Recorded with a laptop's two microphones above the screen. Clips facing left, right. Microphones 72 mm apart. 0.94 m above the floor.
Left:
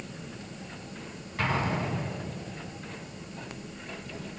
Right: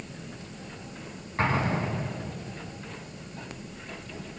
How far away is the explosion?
About 5 m.